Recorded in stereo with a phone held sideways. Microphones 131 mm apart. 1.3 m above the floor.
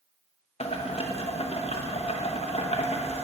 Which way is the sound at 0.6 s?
50° left (ahead or behind).